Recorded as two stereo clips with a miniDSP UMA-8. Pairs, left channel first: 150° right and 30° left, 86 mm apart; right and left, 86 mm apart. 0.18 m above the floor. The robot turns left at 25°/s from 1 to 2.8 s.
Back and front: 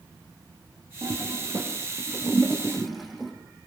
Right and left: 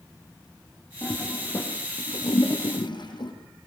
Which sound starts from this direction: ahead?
A toilet flushing, at 1.0 s.